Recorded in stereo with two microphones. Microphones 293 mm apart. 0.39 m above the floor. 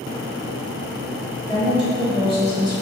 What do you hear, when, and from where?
1.5 s a woman speaking: 5° left (ahead or behind), 1.4 m; by 2.7 s 30° right (ahead or behind), 1.2 m